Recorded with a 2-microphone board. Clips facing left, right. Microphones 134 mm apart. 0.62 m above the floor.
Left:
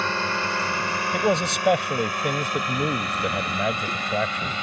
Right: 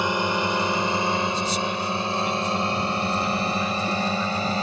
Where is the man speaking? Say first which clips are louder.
Left 3 dB; 75° left (ahead or behind).